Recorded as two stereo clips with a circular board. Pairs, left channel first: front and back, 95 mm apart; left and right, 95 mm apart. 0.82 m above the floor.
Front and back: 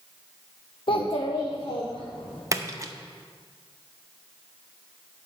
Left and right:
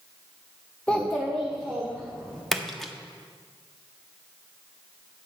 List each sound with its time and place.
0.9 s a child speaking: 15° left, 0.6 m; by 2.4 s 5° right, 2.5 m
2.5 s a splash: 175° left, 0.7 m